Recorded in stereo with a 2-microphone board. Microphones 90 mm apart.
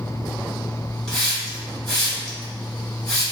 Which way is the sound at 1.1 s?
10° left (ahead or behind).